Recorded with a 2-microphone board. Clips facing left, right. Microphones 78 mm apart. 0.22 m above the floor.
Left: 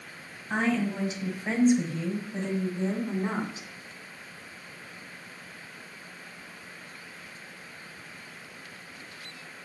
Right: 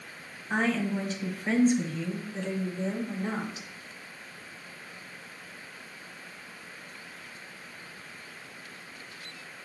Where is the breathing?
I don't hear breathing.